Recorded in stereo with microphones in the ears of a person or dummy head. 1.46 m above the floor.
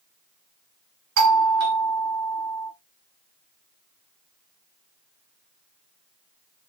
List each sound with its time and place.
1.2 s a doorbell: 75° right (ahead or behind), 1.9 m